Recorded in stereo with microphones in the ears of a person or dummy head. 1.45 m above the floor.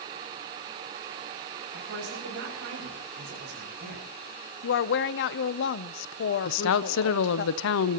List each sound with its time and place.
1.7 s a woman speaking: 70° right (ahead or behind), 7 m
4.6 s a woman speaking: 65° left (ahead or behind), 0.7 m
6.5 s a woman speaking: 70° left (ahead or behind), 0.6 m